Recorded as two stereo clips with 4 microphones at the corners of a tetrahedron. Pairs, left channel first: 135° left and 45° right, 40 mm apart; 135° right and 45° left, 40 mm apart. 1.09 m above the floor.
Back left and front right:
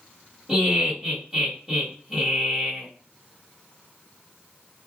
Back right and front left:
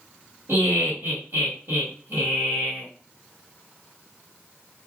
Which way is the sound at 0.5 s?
40° left.